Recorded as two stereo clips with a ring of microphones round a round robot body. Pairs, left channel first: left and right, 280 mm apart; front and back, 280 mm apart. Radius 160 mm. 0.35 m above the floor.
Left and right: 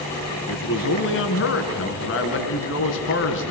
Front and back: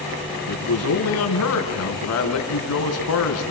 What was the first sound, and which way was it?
A man speaking, 40° left.